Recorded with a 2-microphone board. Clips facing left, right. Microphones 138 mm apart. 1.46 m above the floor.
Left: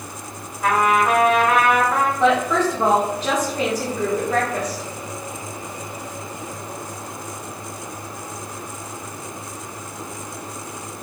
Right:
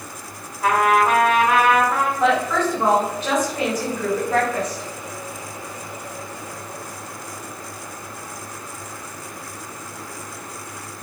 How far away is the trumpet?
About 1.2 m.